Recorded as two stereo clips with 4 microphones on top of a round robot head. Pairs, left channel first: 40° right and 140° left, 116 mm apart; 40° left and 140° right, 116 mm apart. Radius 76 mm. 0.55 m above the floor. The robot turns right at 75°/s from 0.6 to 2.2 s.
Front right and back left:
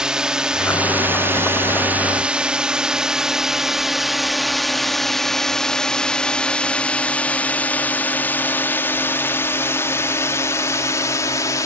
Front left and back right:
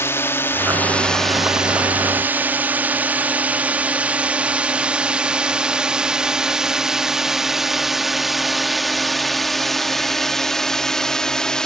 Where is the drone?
65° left; by 11.7 s 40° right.